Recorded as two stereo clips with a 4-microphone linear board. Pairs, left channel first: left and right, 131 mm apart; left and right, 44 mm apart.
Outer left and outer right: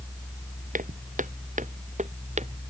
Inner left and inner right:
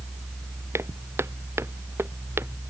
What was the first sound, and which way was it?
Footsteps, 85° right.